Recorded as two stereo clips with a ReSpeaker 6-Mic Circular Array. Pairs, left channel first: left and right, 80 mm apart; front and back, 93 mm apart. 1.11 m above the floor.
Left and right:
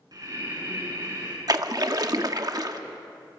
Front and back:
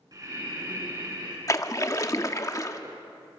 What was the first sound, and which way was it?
Breathing, 130° right.